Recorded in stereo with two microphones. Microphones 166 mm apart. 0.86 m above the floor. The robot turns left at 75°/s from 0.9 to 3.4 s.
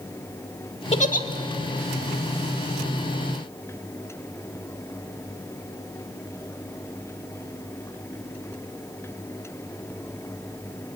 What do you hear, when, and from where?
0.9 s a giggle: 40° left (ahead or behind), 1.4 m; by 1.2 s 65° left (ahead or behind), 1.4 m